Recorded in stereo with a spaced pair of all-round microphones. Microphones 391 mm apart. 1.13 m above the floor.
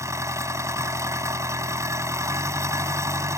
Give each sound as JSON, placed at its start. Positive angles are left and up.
{"t": 0.0, "sound": "an engine running", "side_deg": -5}